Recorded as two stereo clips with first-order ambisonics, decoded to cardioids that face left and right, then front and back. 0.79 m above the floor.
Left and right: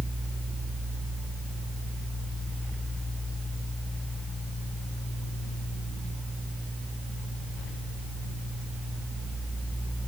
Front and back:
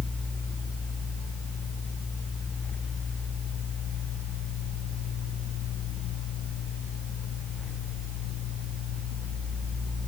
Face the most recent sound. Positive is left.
No sound to turn to.